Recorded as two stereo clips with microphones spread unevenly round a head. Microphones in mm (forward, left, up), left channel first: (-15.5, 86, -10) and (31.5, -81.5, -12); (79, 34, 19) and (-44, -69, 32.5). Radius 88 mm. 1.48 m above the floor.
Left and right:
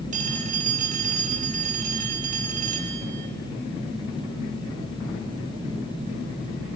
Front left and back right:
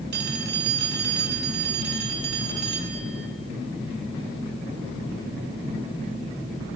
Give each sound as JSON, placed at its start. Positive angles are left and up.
{"t": 0.1, "sound": "a phone ringing", "azimuth_deg": -125, "distance_m": 5.0}